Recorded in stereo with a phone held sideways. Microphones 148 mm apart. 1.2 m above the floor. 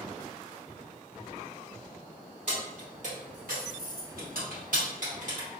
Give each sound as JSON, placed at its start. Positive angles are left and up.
{"t": 2.5, "sound": "keys jangling", "side_deg": -50, "distance_m": 1.3}